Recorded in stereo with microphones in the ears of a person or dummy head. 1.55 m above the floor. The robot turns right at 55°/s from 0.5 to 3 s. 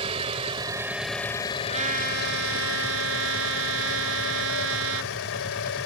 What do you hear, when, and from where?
0.0 s an engine running: 30° right; by 5.9 s 105° left
1.7 s a trumpet: 150° right; by 5.1 s 80° right